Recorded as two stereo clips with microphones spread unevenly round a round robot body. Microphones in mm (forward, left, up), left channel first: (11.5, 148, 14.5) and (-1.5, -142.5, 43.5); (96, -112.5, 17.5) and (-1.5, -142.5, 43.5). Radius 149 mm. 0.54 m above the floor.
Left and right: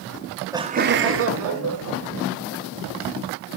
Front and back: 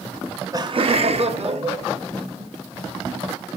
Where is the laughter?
60° left, 0.7 m; by 2.5 s 135° right, 3 m.